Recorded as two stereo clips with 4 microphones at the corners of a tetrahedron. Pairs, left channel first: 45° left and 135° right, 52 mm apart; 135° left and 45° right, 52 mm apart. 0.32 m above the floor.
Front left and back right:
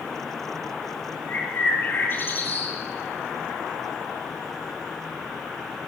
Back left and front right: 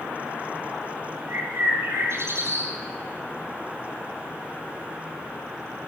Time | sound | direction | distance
1.3 | a bird | straight ahead | 9.5 m